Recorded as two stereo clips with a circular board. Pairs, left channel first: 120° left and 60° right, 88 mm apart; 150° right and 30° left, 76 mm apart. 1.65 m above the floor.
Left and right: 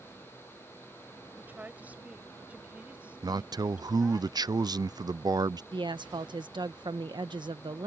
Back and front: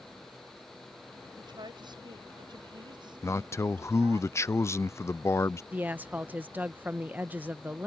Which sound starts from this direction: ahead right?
A woman speaking, at 5.7 s.